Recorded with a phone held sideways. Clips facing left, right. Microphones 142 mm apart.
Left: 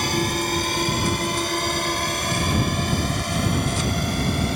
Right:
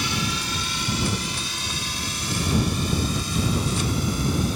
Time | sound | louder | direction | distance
0.0 | a drone | left 5 dB | 55° left (ahead or behind) | ?